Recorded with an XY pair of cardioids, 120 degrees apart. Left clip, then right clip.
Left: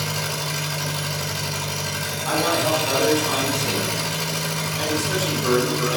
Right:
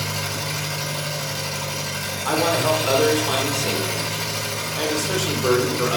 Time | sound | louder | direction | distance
0.0 | an engine running | even | 10° left | 1.7 m
2.2 | a man speaking | right 1 dB | 45° right | 1.3 m